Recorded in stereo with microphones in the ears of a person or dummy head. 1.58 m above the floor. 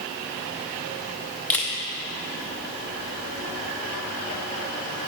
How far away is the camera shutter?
About 0.7 m.